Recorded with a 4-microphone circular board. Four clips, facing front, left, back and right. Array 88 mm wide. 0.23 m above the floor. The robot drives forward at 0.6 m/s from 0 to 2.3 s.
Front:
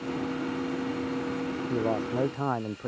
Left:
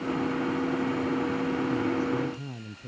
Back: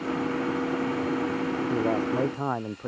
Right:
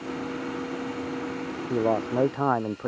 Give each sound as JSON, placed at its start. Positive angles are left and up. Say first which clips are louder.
{"t": 1.7, "sound": "a man speaking", "louder": "right 2 dB, back 2 dB", "azimuth_deg": -90}